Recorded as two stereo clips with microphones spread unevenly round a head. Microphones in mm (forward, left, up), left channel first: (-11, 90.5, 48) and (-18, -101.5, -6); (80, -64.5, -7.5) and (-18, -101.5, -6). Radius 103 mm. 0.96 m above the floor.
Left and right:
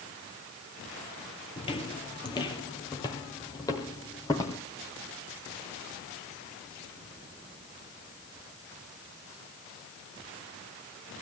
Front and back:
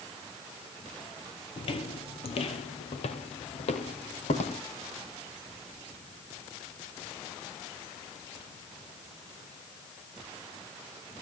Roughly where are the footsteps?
Ahead left.